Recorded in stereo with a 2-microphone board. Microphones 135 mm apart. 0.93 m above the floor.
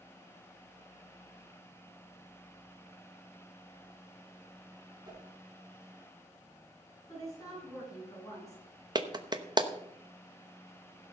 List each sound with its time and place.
5.0 s a whoosh: 30° right (ahead or behind), 4.5 m
7.1 s a woman speaking: 25° left (ahead or behind), 9 m
8.9 s a clap: 30° right (ahead or behind), 0.8 m